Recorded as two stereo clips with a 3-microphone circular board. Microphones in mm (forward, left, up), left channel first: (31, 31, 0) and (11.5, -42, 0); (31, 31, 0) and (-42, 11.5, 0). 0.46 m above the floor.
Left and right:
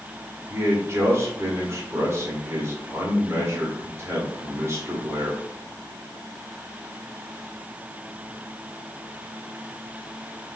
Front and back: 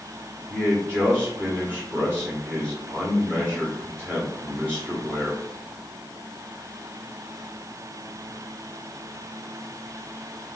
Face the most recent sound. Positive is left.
turn(degrees=-115)